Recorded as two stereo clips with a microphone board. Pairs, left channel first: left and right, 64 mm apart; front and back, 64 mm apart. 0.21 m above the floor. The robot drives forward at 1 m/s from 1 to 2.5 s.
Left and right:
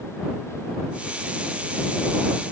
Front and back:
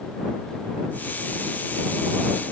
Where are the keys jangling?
No keys jangling in this recording.